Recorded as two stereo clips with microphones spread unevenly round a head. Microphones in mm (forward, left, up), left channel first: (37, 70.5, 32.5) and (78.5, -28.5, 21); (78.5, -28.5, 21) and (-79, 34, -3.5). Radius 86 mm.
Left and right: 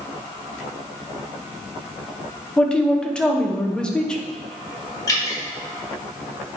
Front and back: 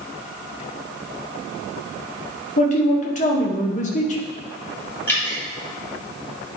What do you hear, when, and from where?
2.6 s a man speaking: 30° left, 1.3 m
5.1 s dripping: 55° left, 3 m